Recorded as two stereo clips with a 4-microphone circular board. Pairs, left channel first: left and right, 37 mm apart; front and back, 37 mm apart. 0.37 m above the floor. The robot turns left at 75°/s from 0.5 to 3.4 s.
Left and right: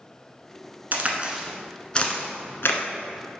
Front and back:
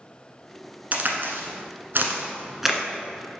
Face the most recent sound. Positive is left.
turn(degrees=40)